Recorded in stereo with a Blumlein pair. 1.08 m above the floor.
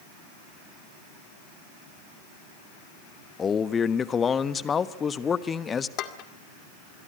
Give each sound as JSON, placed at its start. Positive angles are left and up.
{"t": 3.4, "sound": "a man speaking", "azimuth_deg": 20, "distance_m": 1.2}
{"t": 6.0, "sound": "dishes clattering", "azimuth_deg": 35, "distance_m": 2.0}